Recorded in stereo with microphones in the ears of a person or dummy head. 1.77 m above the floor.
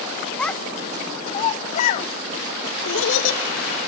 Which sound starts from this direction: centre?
A child speaking, at 0.4 s.